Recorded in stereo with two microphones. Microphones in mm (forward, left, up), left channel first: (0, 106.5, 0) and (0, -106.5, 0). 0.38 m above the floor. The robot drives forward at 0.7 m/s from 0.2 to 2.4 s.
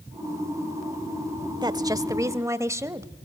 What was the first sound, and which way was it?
A woman speaking, 20° right (ahead or behind).